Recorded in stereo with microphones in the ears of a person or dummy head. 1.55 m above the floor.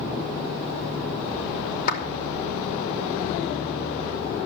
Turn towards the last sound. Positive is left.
turn(degrees=50)  # may be behind; listen again after turning